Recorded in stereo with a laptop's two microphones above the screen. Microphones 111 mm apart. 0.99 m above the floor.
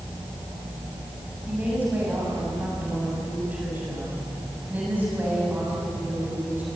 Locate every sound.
1.5 s a woman speaking: 15° right (ahead or behind), 7.5 m